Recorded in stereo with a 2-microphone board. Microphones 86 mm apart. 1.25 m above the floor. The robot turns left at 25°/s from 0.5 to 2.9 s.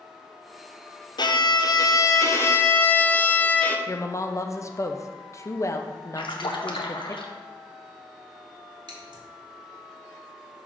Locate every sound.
1.2 s a violin: 65° left, 0.5 m; by 3.8 s 20° left, 0.5 m
3.9 s a woman speaking: 35° left (ahead or behind), 0.5 m
6.2 s a splash: 70° left (ahead or behind), 0.8 m
8.9 s scissors: 60° right (ahead or behind), 1.6 m